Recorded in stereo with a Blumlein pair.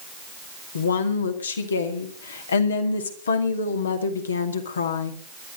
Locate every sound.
0.8 s a woman speaking: 70° left, 2 m